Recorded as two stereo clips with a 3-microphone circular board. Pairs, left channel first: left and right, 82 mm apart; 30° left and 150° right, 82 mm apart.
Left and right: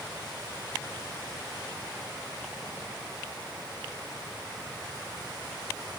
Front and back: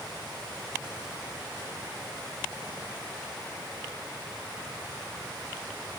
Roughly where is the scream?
I don't hear a scream.